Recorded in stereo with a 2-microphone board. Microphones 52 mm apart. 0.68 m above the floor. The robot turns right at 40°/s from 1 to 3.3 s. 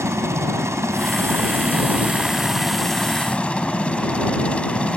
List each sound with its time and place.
0.0 s a helicopter: 70° right; by 5.0 s 25° left